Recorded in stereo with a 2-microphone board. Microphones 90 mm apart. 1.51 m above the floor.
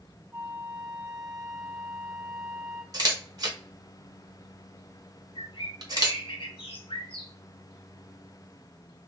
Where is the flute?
25° right (ahead or behind), 1.3 m.